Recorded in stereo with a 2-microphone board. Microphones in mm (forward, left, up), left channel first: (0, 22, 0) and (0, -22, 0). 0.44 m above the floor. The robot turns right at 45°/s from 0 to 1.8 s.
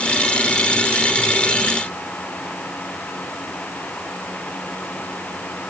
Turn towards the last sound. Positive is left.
No sound to turn to.